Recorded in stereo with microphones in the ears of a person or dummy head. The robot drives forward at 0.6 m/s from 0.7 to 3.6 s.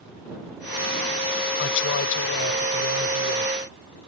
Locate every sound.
1.6 s a woman speaking: 65° left (ahead or behind); by 3.5 s 75° left (ahead or behind)